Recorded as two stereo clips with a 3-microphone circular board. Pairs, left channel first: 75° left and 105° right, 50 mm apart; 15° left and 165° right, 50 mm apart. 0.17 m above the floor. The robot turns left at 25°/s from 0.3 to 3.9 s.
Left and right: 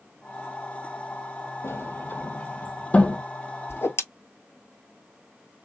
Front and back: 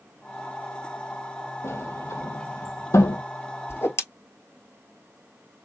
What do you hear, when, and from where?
1.6 s a sliding door: 45° left, 0.9 m; by 3.2 s 5° left, 0.9 m
3.7 s a whoosh: 50° left, 1.1 m; by 4.0 s 45° left, 1.1 m